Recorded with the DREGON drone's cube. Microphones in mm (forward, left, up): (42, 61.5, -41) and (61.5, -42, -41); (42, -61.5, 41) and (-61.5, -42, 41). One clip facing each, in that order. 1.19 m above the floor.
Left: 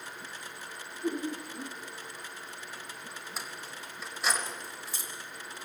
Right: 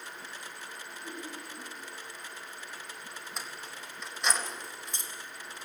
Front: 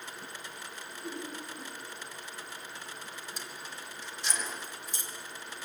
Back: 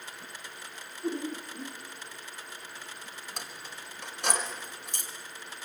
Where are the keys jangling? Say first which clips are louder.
Even, even; 175° right, 4 m.